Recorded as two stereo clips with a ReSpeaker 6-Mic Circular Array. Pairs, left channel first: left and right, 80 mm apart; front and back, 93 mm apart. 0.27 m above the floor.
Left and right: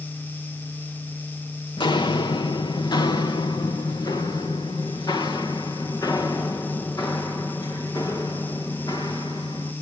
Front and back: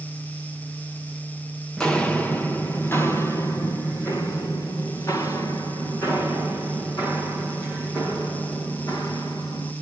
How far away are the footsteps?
About 1.2 m.